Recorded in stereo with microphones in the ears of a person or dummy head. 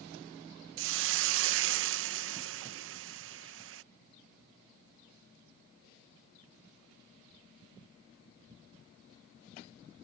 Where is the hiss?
65° right (ahead or behind).